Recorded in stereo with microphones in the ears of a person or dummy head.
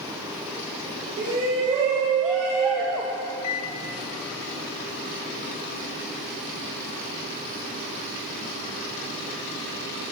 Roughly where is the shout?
Right.